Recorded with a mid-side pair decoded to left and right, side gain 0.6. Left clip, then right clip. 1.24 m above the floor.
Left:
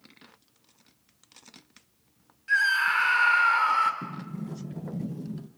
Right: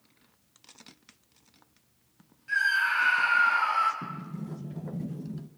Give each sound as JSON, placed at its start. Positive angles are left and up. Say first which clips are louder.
{"t": 2.5, "sound": "a scream", "louder": "left 2 dB", "azimuth_deg": 30, "distance_m": 5.0}
{"t": 4.0, "sound": "a sliding door", "louder": "left 1 dB", "azimuth_deg": 10, "distance_m": 1.1}